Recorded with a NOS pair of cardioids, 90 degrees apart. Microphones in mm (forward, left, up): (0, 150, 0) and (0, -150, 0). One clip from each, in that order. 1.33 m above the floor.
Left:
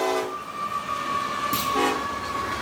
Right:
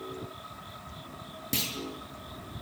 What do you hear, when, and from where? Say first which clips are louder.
1.5 s a clunk: left 3 dB; 10° right, 6.5 m